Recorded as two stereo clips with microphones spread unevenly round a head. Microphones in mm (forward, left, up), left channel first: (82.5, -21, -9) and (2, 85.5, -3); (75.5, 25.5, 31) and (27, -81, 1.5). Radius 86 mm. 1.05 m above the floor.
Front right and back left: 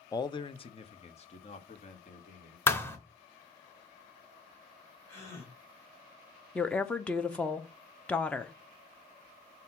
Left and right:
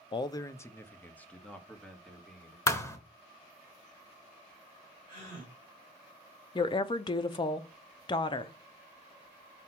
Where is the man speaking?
10° left, 0.5 m; by 2.6 s 20° right, 2 m.